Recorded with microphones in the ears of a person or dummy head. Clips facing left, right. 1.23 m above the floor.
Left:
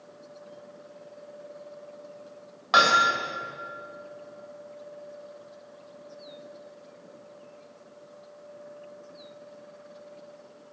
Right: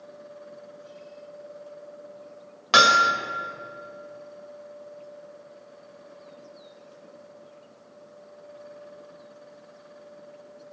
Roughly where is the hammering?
Right.